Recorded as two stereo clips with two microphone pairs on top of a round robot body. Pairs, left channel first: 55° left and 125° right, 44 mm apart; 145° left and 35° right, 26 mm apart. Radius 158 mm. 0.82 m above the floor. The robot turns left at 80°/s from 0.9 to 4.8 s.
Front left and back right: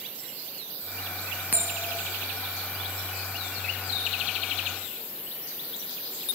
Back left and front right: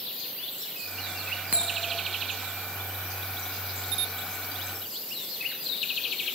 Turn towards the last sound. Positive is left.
turn(degrees=25)